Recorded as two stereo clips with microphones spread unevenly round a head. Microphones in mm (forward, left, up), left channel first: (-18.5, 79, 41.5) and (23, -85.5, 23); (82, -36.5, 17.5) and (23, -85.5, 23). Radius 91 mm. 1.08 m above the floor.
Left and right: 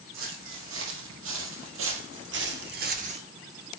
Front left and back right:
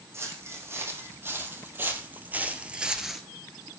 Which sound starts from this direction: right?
Footsteps, at 0.1 s.